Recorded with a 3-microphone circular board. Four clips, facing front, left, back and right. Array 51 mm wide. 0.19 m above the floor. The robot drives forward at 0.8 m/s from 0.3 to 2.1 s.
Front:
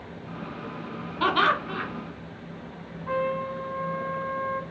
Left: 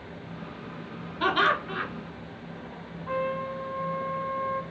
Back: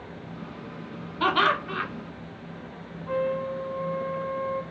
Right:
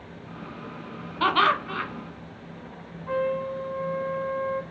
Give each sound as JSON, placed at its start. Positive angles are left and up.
{"t": 1.2, "sound": "laughter", "azimuth_deg": -90, "distance_m": 1.4}
{"t": 3.1, "sound": "a trumpet", "azimuth_deg": -15, "distance_m": 1.4}